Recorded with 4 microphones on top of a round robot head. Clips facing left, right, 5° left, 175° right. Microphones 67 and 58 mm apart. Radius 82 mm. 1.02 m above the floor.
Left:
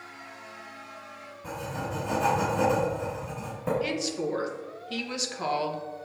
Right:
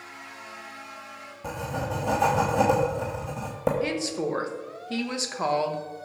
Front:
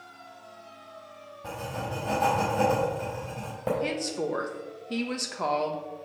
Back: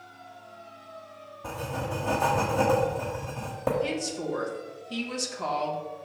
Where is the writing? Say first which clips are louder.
Right 3 dB, back 1 dB; 95° right, 1.2 m.